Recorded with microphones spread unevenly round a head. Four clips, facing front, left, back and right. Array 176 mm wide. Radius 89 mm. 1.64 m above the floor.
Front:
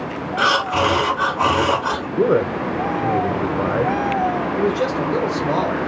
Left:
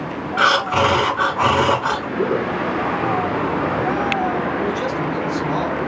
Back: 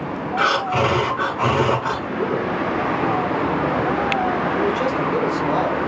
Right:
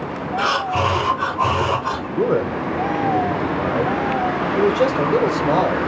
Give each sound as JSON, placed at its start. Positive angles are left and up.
{"t": 0.4, "sound": "breathing", "azimuth_deg": 115, "distance_m": 1.9}
{"t": 2.2, "sound": "a man speaking", "azimuth_deg": -30, "distance_m": 0.8}
{"t": 4.5, "sound": "a man speaking", "azimuth_deg": -90, "distance_m": 2.5}